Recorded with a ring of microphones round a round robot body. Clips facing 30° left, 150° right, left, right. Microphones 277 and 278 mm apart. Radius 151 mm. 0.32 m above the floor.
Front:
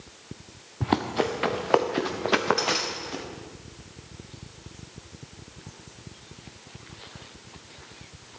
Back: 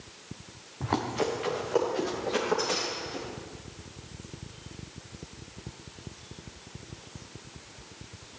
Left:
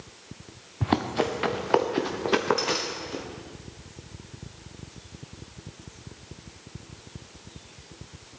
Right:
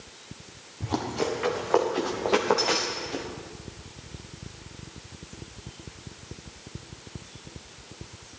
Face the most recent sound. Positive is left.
turn(degrees=10)